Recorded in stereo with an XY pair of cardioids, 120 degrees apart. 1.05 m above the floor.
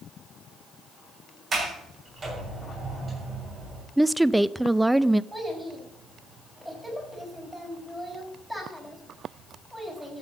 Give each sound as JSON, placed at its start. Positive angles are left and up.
{"t": 1.5, "sound": "a sliding door", "azimuth_deg": -35, "distance_m": 7.0}
{"t": 4.0, "sound": "a woman speaking", "azimuth_deg": -10, "distance_m": 0.5}
{"t": 5.3, "sound": "a child speaking", "azimuth_deg": -10, "distance_m": 5.5}